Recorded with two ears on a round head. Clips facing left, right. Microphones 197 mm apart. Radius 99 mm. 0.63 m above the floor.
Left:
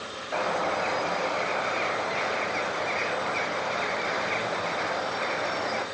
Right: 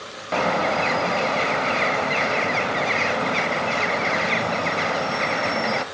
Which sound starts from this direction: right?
A bird, at 0.3 s.